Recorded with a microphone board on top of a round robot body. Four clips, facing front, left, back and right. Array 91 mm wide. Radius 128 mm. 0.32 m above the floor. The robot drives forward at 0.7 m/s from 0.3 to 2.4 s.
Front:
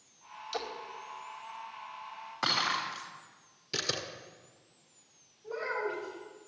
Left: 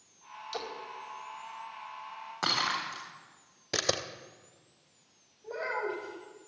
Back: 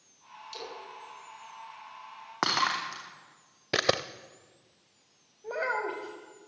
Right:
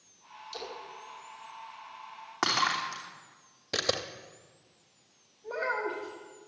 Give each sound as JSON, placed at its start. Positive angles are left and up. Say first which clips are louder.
{"t": 0.5, "sound": "a splash", "louder": "left 3 dB, front 5 dB", "azimuth_deg": 30, "distance_m": 2.5}
{"t": 2.4, "sound": "breaking glass", "louder": "right 3 dB, back 4 dB", "azimuth_deg": -165, "distance_m": 3.0}
{"t": 3.7, "sound": "a camera shutter", "louder": "even, back 10 dB", "azimuth_deg": 170, "distance_m": 0.5}
{"t": 5.4, "sound": "a child speaking", "louder": "right 2 dB, back 3 dB", "azimuth_deg": 180, "distance_m": 1.5}